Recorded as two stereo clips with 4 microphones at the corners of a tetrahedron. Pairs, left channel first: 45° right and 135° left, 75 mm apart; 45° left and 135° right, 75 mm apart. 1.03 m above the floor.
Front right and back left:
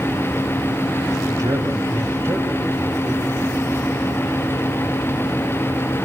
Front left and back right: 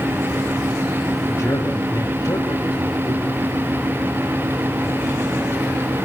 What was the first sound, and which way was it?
A man speaking, 100° left.